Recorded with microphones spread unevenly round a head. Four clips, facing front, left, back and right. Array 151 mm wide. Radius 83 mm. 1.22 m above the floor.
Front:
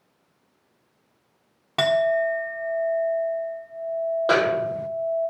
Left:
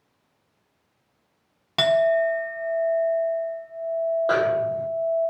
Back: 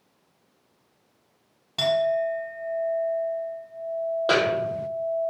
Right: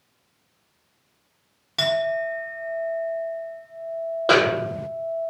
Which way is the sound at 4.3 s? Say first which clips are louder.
Right 2 dB, front 1 dB; 70° right.